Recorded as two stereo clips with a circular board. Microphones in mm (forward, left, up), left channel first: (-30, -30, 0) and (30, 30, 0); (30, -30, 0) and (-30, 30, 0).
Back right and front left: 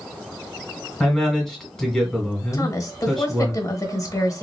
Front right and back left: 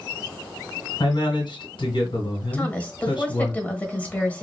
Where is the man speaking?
55° right, 2.5 m.